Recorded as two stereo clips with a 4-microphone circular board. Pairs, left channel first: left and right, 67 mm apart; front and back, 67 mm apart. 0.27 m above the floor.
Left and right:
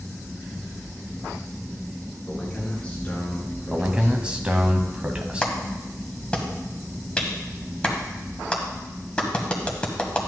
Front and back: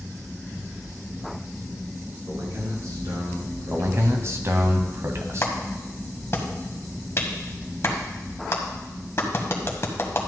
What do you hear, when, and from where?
2.3 s a man speaking: 160° left, 3 m; by 4.2 s 150° left, 5.5 m
3.7 s a man speaking: 160° right, 1.4 m
5.4 s a clap: 25° left, 1.6 m